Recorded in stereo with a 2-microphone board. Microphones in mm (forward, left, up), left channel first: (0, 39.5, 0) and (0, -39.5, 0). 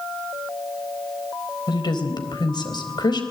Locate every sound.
1.7 s a woman speaking: 60° left (ahead or behind), 4 m